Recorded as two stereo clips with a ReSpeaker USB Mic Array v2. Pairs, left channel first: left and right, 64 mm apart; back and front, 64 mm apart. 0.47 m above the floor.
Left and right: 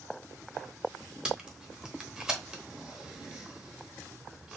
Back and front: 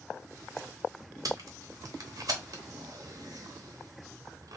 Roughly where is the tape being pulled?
Ahead.